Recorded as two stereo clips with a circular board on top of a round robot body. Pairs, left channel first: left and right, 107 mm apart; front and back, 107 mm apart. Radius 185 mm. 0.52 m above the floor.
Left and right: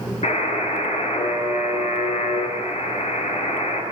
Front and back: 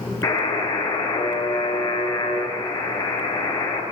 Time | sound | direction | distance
0.2 | a buzzer | 60° left | 9 m